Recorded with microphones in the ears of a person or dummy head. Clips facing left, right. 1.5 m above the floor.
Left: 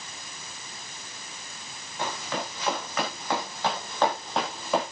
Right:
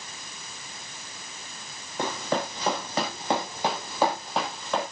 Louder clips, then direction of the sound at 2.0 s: Right 4 dB; 45° right (ahead or behind).